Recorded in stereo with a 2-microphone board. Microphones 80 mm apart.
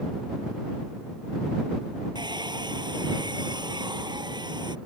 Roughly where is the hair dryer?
Right.